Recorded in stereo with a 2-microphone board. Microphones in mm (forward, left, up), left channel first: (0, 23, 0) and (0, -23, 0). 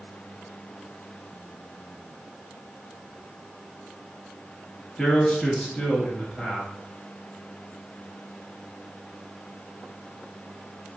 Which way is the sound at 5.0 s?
10° left (ahead or behind).